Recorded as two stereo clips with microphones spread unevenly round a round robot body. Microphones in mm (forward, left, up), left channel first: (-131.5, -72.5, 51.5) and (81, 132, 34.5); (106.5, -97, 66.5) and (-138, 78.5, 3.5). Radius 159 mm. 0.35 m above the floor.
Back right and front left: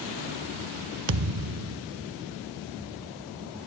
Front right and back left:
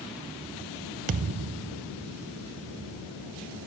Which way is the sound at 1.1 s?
80° left.